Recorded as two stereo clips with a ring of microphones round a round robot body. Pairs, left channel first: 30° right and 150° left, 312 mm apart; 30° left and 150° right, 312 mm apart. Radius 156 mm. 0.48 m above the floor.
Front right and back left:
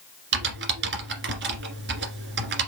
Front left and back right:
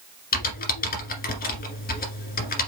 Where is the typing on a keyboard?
95° left, 1.7 m.